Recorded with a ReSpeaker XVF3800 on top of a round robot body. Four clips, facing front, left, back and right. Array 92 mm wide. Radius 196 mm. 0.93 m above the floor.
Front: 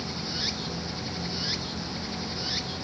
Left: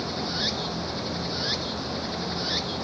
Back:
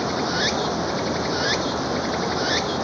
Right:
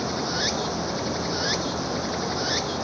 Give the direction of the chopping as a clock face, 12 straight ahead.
No chopping in this recording.